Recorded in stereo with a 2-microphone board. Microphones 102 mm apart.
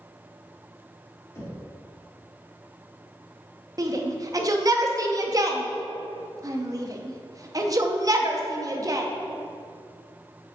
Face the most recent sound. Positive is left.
turn(degrees=-35)  # may be behind; listen again after turning